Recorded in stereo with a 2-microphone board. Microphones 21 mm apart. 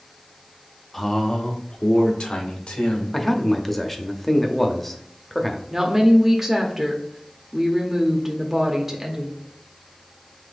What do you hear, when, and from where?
0.9 s a man speaking: 5° left (ahead or behind), 0.6 m; by 3.0 s 65° left (ahead or behind), 1.8 m
3.1 s a man speaking: 10° left (ahead or behind), 0.7 m
5.7 s a woman speaking: 15° right (ahead or behind), 0.7 m